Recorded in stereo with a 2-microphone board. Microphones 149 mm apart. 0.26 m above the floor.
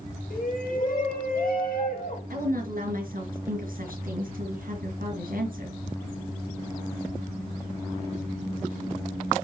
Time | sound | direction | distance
0.3 | a shout | 70° left (ahead or behind) | 4.5 m
2.3 | a woman speaking | 70° right (ahead or behind) | 4.5 m